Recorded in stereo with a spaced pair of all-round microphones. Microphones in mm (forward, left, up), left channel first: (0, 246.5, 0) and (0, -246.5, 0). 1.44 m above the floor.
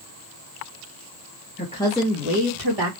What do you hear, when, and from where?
1.6 s a woman speaking: 20° left (ahead or behind), 1.5 m; by 2.9 s 60° right (ahead or behind), 1.5 m